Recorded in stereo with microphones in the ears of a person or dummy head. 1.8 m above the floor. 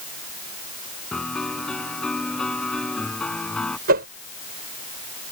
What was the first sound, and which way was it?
A piano, 5° left (ahead or behind).